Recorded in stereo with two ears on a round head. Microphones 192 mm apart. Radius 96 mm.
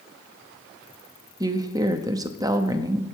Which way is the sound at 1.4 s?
15° right (ahead or behind).